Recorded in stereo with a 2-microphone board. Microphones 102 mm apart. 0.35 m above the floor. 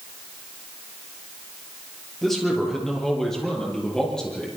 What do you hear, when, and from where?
2.2 s a man speaking: centre (ahead or behind), 7 m; by 4.5 s 5° left (ahead or behind), 9.5 m